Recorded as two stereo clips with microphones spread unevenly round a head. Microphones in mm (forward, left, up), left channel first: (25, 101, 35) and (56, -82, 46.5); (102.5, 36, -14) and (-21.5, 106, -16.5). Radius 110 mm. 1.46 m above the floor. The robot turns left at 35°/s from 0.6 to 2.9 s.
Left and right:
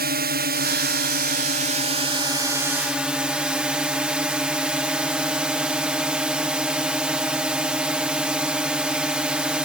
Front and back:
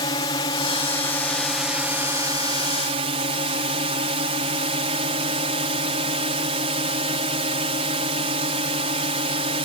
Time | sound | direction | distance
0.0 | a drone | 85° right | ?